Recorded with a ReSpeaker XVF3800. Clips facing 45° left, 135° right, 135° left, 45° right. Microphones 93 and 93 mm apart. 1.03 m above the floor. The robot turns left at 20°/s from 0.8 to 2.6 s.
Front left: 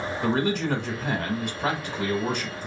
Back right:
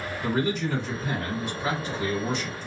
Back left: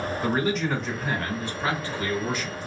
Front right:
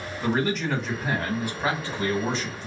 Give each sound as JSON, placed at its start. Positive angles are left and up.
{"t": 0.2, "sound": "a man speaking", "azimuth_deg": 45, "distance_m": 1.1}